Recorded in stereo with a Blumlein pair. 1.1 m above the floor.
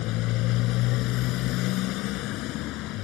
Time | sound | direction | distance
0.0 | a motorcycle | 40° left | ?